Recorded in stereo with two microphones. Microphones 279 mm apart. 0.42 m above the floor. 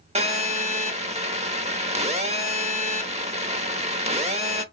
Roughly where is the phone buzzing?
Right.